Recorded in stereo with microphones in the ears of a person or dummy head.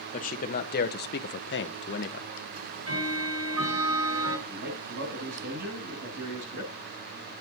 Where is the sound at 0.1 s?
35° left (ahead or behind), 1.5 m; by 2.3 s 45° left (ahead or behind), 0.8 m.